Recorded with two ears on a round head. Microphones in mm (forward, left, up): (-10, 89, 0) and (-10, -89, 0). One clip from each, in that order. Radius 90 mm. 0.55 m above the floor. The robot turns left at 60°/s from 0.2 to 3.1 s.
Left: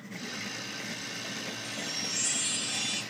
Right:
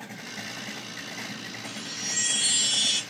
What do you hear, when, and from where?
1.6 s a chime: 10° left, 1.1 m; by 3.0 s 70° right, 1.1 m